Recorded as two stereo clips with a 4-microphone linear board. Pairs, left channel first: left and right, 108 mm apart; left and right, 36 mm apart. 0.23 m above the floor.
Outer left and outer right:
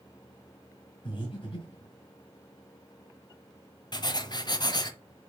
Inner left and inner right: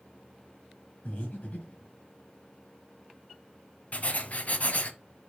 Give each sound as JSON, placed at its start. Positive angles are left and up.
{"t": 1.1, "sound": "breathing", "side_deg": 50, "distance_m": 3.5}
{"t": 3.9, "sound": "writing", "side_deg": 40, "distance_m": 0.9}